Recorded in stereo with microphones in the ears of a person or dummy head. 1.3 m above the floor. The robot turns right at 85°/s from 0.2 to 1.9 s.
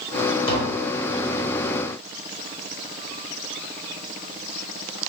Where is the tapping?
15° left, 2.5 m; by 0.8 s 50° left, 2.5 m.